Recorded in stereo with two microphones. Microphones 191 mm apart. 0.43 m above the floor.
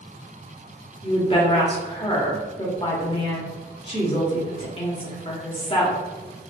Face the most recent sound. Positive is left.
turn(degrees=30)  # may be behind; listen again after turning